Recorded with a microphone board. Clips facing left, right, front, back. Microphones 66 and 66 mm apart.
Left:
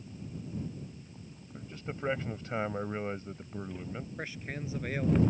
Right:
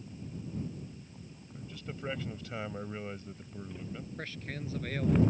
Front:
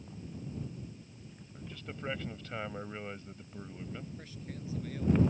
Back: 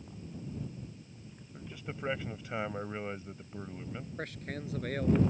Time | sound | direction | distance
1.5 | a man speaking | 115° left | ?
4.2 | a man speaking | 165° left | ?